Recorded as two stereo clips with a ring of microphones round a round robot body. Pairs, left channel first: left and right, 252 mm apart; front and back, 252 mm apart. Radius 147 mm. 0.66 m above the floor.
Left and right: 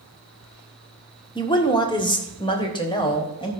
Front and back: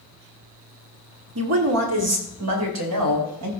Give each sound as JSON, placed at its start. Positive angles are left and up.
{"t": 1.4, "sound": "a woman speaking", "azimuth_deg": 160, "distance_m": 1.7}